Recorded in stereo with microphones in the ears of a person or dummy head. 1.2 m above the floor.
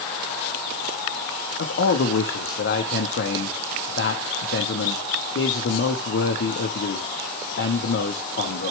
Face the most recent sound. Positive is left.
turn(degrees=50)  # may be behind; listen again after turning